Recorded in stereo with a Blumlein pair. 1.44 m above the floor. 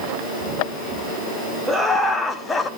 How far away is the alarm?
No alarm in this recording.